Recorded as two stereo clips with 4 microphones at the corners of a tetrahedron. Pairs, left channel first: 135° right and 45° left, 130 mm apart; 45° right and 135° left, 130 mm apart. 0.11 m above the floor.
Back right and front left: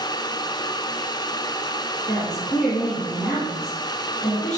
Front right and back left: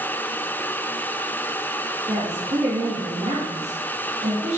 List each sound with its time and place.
2.1 s a woman speaking: 145° left, 3.5 m